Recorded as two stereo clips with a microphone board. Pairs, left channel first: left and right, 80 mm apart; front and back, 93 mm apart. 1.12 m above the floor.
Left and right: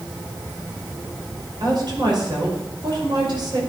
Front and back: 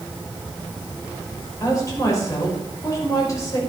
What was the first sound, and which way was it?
A woman speaking, 55° right.